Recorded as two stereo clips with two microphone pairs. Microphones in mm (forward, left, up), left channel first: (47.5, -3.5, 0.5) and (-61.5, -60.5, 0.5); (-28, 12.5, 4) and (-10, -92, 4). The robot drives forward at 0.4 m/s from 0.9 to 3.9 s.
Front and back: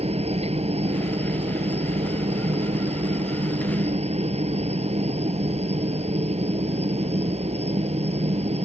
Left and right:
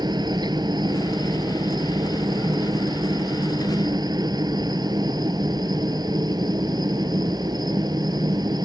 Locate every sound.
0.0 s a helicopter: 125° right; by 8.7 s 130° right